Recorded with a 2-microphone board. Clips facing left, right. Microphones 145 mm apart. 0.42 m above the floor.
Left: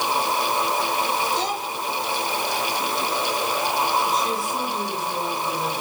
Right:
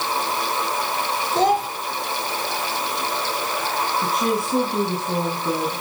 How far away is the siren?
I don't hear a siren.